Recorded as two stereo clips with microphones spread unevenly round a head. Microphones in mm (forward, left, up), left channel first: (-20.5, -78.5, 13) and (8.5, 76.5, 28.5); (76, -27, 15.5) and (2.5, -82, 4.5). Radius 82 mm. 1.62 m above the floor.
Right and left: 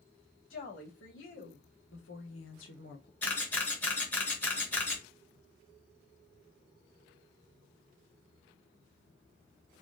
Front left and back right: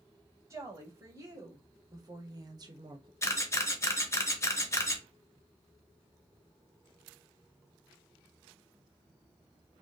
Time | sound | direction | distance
0.5 | a woman speaking | 85° right | 3 m
3.2 | a camera shutter | 20° right | 1.3 m